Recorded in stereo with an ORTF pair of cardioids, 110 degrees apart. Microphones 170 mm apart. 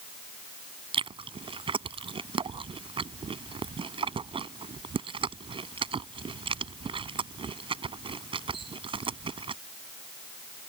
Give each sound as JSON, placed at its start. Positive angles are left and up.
{"t": 0.9, "sound": "chewing", "azimuth_deg": -30}